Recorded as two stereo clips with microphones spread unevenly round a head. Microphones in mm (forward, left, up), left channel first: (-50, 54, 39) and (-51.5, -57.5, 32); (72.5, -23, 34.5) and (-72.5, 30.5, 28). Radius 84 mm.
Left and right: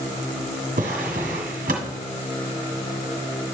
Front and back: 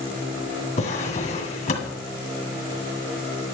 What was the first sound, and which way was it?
A drawer, 65° right.